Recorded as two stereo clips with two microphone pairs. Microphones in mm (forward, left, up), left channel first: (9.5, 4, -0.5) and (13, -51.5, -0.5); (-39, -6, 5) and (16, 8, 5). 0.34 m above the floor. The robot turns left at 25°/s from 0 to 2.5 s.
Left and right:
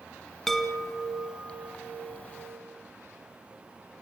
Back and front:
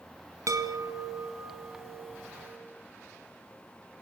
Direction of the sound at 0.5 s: 10° left.